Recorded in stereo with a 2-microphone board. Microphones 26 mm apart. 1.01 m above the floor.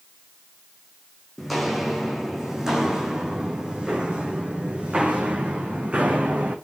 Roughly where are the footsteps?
Centre.